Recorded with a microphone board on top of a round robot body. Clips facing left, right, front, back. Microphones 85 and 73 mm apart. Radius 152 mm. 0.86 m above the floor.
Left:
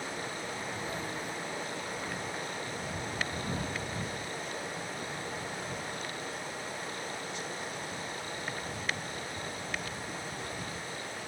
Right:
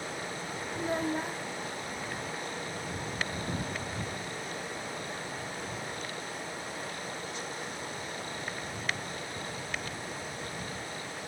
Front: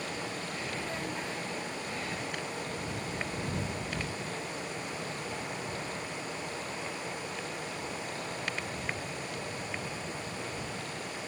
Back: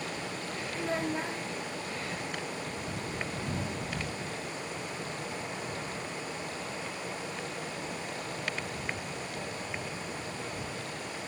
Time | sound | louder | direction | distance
0.8 | a child speaking | right 6 dB, back 8 dB | 125° right | ?